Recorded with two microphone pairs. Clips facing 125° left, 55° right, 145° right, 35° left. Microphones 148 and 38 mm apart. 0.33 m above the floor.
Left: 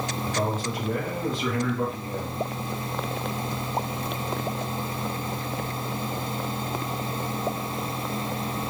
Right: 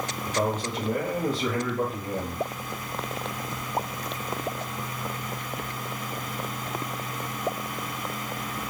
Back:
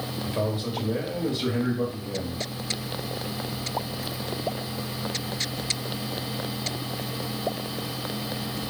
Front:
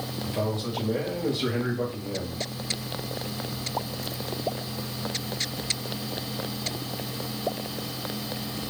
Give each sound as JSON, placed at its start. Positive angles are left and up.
{"t": 0.3, "sound": "a man speaking", "azimuth_deg": -125, "distance_m": 1.1}